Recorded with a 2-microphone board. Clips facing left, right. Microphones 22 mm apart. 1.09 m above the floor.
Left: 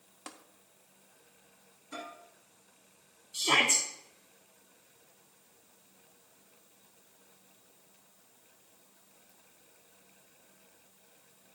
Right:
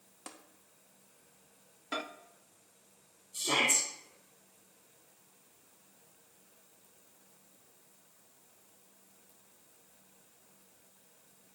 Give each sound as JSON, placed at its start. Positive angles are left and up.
{"t": 0.3, "sound": "tapping", "side_deg": 10, "distance_m": 0.8}
{"t": 1.9, "sound": "a microwave", "side_deg": -65, "distance_m": 0.8}
{"t": 3.3, "sound": "a shout", "side_deg": 50, "distance_m": 1.1}